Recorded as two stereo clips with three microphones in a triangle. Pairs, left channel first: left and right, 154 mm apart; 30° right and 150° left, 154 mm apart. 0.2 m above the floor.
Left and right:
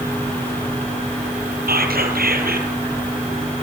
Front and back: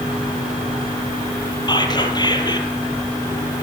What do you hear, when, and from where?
1.7 s whispering: 90° right, 4.5 m